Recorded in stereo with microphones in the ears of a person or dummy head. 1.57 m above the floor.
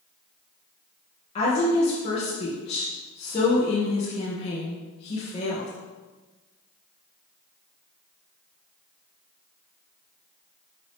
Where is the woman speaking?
40° left (ahead or behind), 1.7 m.